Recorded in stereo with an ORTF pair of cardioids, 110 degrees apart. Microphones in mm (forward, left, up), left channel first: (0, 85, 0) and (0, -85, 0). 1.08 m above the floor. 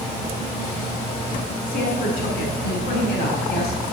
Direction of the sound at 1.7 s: 60° left.